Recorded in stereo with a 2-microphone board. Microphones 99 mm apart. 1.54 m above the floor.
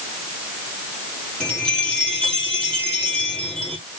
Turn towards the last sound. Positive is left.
turn(degrees=10)  # may be behind; listen again after turning